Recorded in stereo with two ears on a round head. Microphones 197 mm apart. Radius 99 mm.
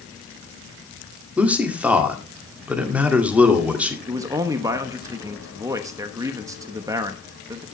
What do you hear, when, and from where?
1.4 s a man speaking: 5° right (ahead or behind), 2 m
4.1 s a man speaking: 15° right (ahead or behind), 1.0 m